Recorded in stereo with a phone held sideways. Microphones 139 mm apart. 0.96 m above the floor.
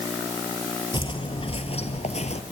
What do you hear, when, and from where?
0.9 s footsteps: 35° left (ahead or behind), 1.4 m; by 2.4 s 55° left (ahead or behind), 1.4 m